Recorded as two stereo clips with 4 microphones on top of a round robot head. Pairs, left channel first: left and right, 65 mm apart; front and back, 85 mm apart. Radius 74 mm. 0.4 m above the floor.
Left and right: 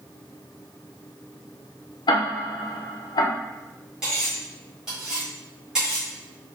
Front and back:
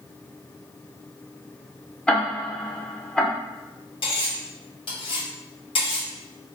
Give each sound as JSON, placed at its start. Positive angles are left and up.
{"t": 2.1, "sound": "ticking", "azimuth_deg": 80, "distance_m": 0.7}
{"t": 4.0, "sound": "cutlery clinking", "azimuth_deg": -10, "distance_m": 1.5}